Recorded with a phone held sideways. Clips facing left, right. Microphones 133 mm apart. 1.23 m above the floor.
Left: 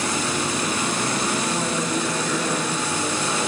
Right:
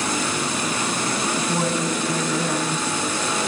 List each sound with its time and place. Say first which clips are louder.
1.4 s a woman speaking: right 1 dB; 10° right (ahead or behind), 7 m